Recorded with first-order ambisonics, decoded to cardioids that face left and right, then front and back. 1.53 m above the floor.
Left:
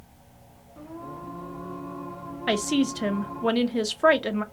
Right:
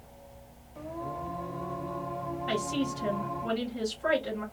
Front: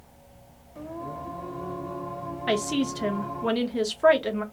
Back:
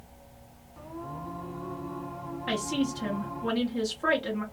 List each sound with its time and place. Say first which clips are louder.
0.8 s singing: right 3 dB, front 4 dB; 30° right, 1.4 m
2.5 s a woman speaking: left 8 dB, front 4 dB; 70° left, 0.7 m